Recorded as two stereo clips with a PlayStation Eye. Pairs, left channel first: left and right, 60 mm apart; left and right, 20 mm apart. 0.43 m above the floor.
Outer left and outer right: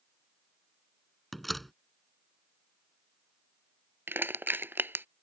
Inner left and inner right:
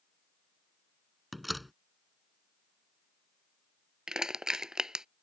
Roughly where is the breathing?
No breathing in this recording.